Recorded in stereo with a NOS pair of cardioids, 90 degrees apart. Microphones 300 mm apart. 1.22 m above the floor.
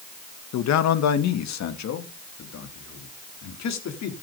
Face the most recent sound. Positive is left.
turn(degrees=65)